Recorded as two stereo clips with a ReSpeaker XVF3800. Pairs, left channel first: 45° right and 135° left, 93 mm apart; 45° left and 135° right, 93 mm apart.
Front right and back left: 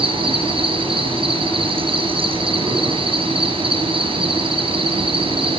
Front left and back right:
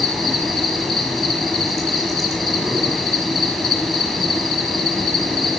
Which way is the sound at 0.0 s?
130° left.